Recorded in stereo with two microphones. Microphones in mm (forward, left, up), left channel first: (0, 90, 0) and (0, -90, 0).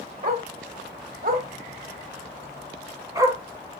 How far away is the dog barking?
About 1.8 m.